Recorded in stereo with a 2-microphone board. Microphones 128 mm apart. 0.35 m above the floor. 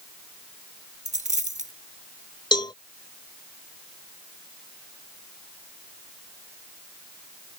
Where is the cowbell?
35° left (ahead or behind).